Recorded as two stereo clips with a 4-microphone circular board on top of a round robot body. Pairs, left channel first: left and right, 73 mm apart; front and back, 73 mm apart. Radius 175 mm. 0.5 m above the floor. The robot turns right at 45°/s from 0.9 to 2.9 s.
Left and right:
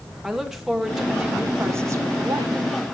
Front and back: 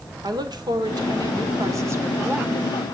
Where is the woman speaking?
175° right, 2.0 m; by 2.6 s 100° right, 2.0 m.